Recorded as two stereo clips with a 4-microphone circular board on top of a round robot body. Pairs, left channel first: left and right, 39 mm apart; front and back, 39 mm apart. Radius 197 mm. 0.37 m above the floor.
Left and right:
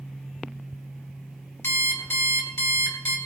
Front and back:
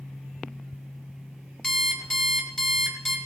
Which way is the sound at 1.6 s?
80° left.